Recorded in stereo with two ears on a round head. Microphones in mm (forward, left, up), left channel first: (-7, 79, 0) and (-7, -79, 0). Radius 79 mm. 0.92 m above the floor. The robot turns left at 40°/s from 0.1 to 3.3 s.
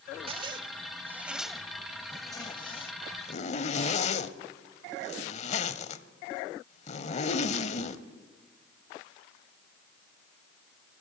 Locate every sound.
0.3 s a zipper: 30° right (ahead or behind), 0.9 m; by 8.0 s 40° left (ahead or behind), 0.9 m